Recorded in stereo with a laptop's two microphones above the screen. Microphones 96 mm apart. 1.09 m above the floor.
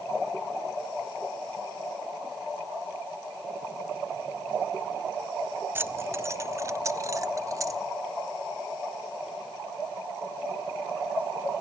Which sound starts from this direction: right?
Keys jangling, at 5.8 s.